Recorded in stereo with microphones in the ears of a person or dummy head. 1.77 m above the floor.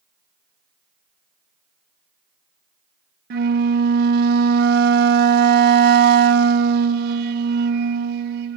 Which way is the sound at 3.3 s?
65° right (ahead or behind).